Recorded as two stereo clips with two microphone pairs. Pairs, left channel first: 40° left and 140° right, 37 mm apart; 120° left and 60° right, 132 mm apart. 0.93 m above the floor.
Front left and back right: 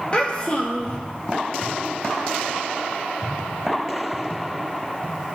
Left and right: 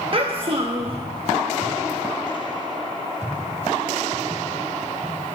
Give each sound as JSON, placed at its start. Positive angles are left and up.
{"t": 0.1, "sound": "a child speaking", "azimuth_deg": -15, "distance_m": 1.0}